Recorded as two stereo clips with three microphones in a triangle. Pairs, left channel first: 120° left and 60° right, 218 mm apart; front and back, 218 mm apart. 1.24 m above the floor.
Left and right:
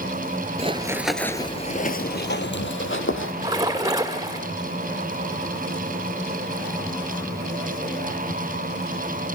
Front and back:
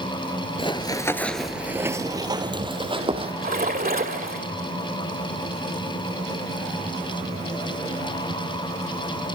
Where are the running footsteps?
40° right, 1.4 m; by 3.3 s 115° left, 3 m.